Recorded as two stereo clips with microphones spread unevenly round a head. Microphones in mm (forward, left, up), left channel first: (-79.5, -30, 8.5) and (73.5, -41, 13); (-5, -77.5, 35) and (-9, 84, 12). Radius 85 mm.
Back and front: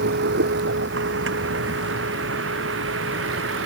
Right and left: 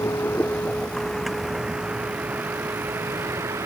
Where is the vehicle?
15° right; by 3.7 s 15° left.